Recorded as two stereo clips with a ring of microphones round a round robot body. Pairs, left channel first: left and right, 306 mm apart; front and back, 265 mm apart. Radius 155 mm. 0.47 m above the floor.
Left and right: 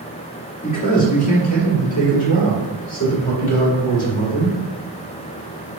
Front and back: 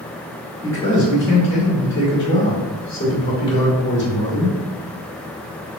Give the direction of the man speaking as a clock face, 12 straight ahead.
11 o'clock.